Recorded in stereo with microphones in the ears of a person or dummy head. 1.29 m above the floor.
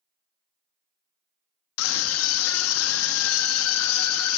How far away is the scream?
About 2 m.